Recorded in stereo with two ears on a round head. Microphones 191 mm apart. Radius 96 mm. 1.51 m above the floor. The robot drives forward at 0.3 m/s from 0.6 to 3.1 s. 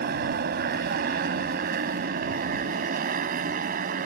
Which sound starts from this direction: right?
A motorcycle, at 0.0 s.